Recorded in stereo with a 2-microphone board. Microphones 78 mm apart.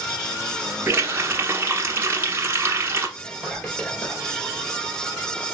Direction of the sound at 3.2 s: 15° left (ahead or behind).